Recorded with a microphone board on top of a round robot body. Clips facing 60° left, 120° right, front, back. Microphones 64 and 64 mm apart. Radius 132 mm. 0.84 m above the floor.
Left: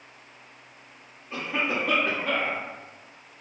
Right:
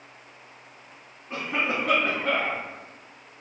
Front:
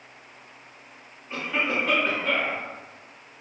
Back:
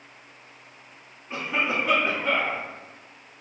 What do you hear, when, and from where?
1.3 s a cough: 115° right, 1.6 m